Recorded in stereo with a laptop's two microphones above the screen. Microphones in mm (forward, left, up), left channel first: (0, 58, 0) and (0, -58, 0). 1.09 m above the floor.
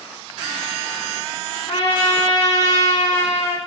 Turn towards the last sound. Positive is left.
turn(degrees=65)  # may be behind; listen again after turning